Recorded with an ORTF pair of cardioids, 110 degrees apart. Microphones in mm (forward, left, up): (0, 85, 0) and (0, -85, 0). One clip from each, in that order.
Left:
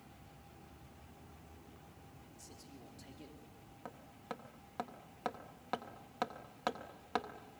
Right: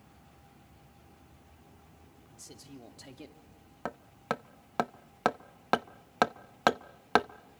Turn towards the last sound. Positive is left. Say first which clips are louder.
# right 12 dB
turn(degrees=-60)